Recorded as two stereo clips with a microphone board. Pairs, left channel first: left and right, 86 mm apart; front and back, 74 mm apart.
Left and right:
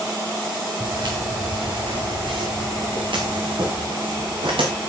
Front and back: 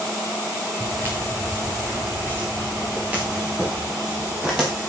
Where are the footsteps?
125° right, 6 m; by 4.9 s 100° right, 6.5 m.